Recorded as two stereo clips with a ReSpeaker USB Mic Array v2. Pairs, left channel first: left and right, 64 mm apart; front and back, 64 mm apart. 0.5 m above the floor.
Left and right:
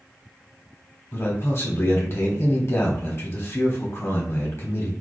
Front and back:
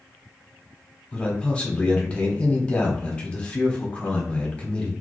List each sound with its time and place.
1.1 s a man speaking: 65° left, 1.0 m